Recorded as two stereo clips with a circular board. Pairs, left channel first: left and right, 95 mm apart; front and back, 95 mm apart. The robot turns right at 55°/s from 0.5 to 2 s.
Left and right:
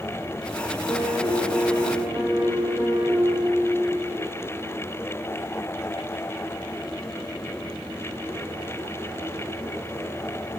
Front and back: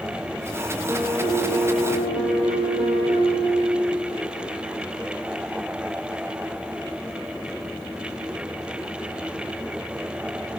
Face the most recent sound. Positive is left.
turn(degrees=-160)